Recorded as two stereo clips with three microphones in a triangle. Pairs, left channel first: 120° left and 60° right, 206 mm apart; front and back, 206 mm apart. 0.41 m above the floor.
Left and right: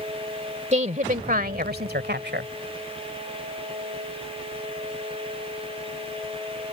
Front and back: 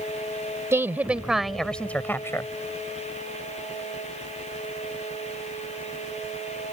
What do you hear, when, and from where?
0.7 s a woman speaking: 105° right; by 2.5 s 70° right